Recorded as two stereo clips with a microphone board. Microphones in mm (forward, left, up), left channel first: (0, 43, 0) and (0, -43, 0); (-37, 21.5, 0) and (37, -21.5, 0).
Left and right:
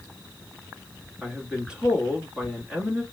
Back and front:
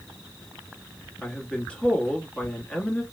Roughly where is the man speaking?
Behind right.